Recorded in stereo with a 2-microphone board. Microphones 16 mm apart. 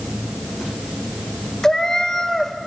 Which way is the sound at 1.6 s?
35° left (ahead or behind).